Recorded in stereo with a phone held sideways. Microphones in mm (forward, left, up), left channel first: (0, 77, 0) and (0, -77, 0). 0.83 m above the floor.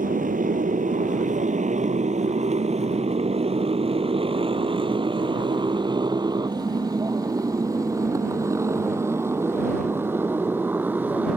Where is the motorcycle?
65° right (ahead or behind); by 11.4 s 10° right (ahead or behind).